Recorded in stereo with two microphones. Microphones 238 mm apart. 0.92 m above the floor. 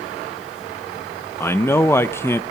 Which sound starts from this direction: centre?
A man speaking, at 1.4 s.